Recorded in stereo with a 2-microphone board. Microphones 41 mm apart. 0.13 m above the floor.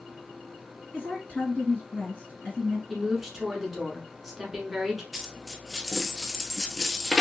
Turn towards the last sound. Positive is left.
turn(degrees=-5)  # may be behind; listen again after turning